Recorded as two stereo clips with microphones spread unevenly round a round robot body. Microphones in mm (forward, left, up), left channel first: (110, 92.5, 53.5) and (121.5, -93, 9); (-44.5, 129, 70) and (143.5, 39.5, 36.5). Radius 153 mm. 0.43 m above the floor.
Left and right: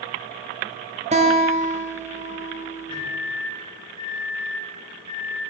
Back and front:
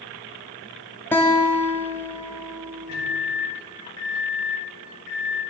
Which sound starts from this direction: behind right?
A guitar, at 1.1 s.